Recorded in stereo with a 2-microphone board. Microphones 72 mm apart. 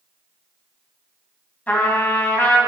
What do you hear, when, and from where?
1.7 s a trumpet: 20° left (ahead or behind), 2 m